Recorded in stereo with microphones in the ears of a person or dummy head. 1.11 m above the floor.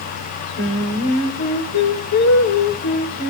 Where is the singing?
85° left, 3.5 m.